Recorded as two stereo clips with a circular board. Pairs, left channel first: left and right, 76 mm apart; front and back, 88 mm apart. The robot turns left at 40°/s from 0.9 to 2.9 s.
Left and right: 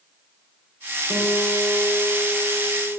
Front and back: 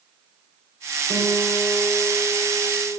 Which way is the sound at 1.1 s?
25° left.